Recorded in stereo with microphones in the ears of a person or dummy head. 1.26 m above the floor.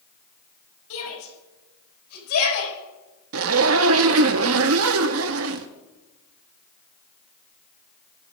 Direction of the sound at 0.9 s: 80° left.